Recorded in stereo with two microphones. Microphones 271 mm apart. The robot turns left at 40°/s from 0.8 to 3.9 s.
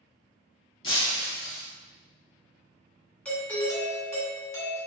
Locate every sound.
0.8 s breaking glass: 60° left, 1.1 m; by 1.6 s 30° left, 1.1 m
3.2 s a doorbell: 5° left (ahead or behind), 1.9 m; by 4.8 s 10° left (ahead or behind), 1.9 m